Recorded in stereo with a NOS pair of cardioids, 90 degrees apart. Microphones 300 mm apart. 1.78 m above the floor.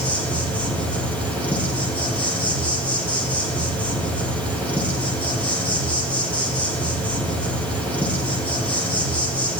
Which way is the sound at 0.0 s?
5° left.